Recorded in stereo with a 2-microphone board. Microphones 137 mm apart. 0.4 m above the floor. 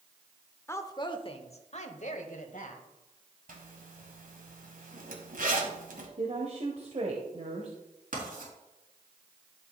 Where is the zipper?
70° right (ahead or behind), 1.6 m.